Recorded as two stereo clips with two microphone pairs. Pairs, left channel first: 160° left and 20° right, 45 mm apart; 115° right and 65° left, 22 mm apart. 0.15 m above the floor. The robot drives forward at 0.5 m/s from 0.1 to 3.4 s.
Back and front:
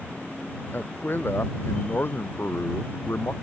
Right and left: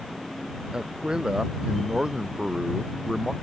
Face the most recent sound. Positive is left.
turn(degrees=130)